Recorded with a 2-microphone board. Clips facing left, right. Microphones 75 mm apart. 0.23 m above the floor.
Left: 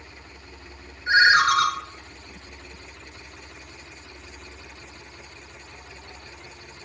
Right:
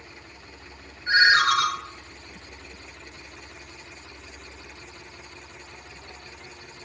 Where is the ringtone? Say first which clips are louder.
Left 2 dB; 20° left (ahead or behind), 0.6 m.